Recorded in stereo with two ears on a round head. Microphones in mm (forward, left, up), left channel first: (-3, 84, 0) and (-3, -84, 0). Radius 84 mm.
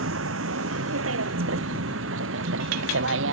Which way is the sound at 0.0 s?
90° right.